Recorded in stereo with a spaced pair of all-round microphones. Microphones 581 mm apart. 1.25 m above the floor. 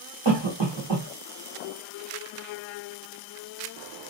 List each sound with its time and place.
0.2 s a cough: 50° right (ahead or behind), 1.1 m